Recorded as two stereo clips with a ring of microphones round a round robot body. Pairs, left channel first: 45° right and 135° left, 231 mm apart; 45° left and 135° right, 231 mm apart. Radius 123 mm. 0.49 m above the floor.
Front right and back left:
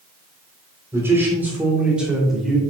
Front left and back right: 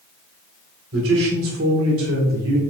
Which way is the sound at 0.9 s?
145° right.